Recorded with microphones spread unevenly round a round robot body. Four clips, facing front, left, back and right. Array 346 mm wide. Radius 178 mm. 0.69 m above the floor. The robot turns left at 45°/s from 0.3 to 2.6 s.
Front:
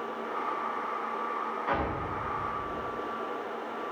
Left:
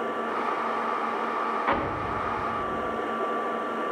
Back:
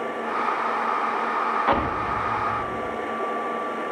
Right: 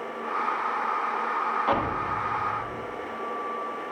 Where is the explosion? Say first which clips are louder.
Right 1 dB, back 8 dB; 175° right, 1.2 m; by 3.0 s 140° left, 1.2 m.